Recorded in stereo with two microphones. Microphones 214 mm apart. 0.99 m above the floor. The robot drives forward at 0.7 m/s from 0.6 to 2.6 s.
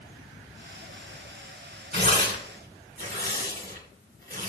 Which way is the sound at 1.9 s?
45° right (ahead or behind).